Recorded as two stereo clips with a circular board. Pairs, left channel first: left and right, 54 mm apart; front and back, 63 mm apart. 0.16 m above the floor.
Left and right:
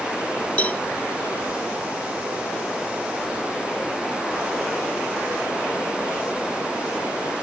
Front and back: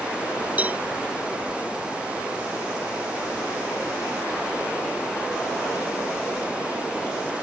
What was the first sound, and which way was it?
A cowbell, 130° left.